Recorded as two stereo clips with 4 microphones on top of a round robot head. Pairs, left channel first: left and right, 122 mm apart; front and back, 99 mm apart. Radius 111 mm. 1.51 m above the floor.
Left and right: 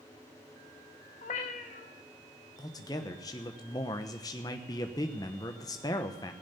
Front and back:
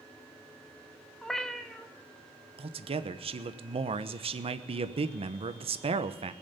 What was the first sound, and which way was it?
A cat meowing, 85° left.